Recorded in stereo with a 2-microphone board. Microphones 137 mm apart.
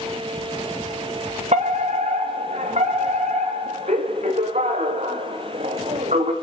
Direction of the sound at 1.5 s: 55° right (ahead or behind).